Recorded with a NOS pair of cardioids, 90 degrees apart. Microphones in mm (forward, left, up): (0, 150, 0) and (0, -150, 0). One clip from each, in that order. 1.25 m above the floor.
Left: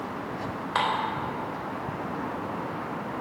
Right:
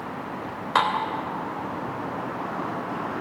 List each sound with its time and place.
0.8 s dishes clattering: 45° right, 3.5 m